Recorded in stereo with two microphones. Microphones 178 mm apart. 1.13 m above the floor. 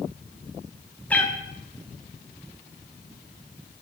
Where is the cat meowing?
10° left (ahead or behind), 0.6 m.